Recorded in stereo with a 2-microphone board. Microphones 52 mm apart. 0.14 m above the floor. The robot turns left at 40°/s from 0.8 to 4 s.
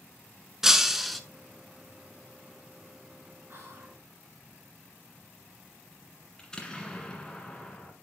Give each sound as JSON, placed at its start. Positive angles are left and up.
{"t": 0.6, "sound": "breaking glass", "side_deg": -10, "distance_m": 0.6}
{"t": 3.5, "sound": "whispering", "side_deg": -40, "distance_m": 2.0}
{"t": 6.4, "sound": "an explosion", "side_deg": 15, "distance_m": 1.6}